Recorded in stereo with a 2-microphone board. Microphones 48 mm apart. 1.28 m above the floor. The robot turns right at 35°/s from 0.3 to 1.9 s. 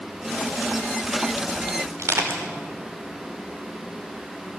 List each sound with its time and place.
2.0 s crushing: 80° right, 5 m